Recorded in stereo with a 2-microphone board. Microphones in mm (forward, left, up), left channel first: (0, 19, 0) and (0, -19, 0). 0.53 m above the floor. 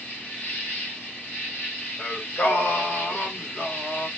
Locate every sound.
0.0 s an insect: 70° left (ahead or behind), 1.5 m
2.0 s singing: 55° left (ahead or behind), 1.4 m